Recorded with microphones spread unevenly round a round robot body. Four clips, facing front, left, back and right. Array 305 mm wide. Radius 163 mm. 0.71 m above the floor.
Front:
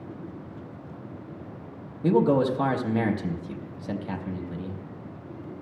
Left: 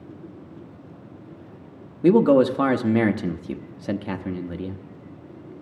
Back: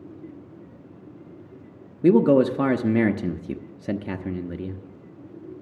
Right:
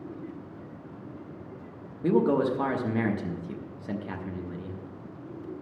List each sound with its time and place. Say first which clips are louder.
2.0 s a man speaking: left 8 dB, back 5 dB; 150° left, 0.7 m